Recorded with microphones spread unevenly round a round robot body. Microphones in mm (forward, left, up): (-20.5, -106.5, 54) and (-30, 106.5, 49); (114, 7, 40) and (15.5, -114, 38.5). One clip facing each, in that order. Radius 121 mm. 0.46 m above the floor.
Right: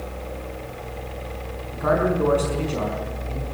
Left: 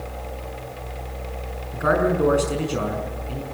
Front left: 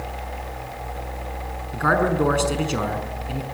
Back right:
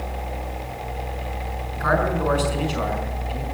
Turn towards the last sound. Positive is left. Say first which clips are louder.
# left 1 dB, front left 2 dB
turn(degrees=10)